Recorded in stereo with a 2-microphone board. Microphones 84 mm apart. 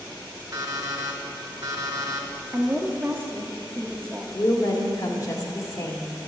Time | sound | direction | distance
0.5 | an alarm clock | 40° right (ahead or behind) | 1.2 m
2.5 | a woman speaking | 25° right (ahead or behind) | 0.8 m
4.3 | a woman speaking | 45° left (ahead or behind) | 1.3 m